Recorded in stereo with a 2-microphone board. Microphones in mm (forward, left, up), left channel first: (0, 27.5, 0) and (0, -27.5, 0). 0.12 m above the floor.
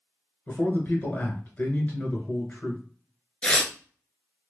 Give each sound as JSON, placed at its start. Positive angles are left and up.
{"t": 0.5, "sound": "a man speaking", "side_deg": 35, "distance_m": 1.3}
{"t": 3.4, "sound": "tearing paper", "side_deg": 20, "distance_m": 0.5}